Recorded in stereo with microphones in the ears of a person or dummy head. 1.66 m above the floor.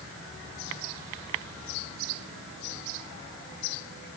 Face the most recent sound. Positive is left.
No sound to turn to.